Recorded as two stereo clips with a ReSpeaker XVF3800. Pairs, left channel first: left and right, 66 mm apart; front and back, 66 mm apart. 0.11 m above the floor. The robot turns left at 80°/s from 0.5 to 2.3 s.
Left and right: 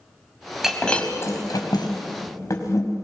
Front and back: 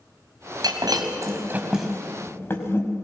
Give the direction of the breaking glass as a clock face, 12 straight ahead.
6 o'clock.